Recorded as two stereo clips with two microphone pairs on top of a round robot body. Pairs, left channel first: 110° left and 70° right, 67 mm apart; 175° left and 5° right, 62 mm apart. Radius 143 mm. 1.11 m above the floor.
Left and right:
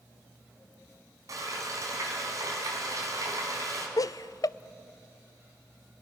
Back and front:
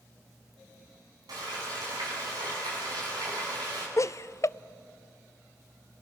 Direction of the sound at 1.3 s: 30° right.